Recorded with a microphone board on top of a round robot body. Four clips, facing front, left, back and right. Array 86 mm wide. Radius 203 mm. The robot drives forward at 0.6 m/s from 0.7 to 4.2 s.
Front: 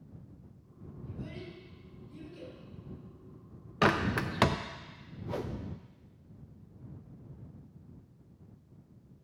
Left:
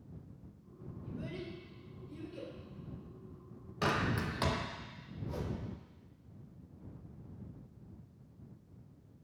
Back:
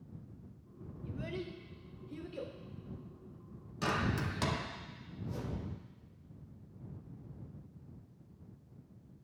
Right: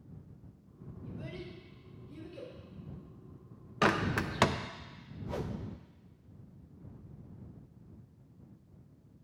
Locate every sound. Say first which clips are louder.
1.1 s a child speaking: left 1 dB, back 3 dB; straight behind, 1.7 m
3.8 s a bird: right 4 dB, front 7 dB; 35° right, 0.8 m; by 4.5 s 50° right, 0.7 m
5.3 s a whoosh: right 3 dB, front 6 dB; 35° right, 0.9 m